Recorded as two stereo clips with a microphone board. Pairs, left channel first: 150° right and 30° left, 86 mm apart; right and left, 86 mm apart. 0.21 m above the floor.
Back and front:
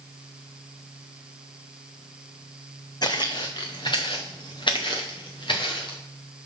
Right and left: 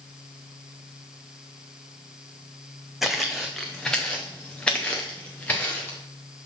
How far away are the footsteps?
About 1.0 m.